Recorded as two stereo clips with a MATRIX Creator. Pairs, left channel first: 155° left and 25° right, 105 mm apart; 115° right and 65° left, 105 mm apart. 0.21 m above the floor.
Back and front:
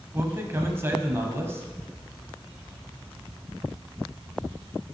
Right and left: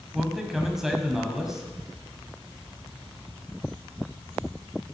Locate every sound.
0.1 s a man speaking: 15° right, 1.0 m